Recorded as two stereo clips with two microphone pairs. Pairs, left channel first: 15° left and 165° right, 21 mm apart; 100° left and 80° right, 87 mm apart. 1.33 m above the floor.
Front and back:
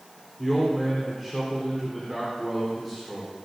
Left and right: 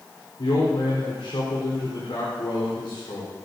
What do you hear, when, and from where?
0.4 s a man speaking: 90° left, 4 m